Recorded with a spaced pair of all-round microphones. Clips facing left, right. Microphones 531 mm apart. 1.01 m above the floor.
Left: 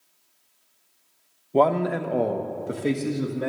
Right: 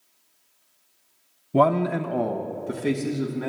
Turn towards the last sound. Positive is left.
turn(degrees=-10)  # may be behind; listen again after turning